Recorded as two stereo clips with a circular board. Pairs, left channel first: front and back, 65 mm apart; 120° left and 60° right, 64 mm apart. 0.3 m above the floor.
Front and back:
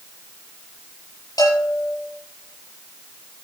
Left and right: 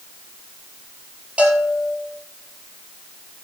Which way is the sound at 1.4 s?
10° left.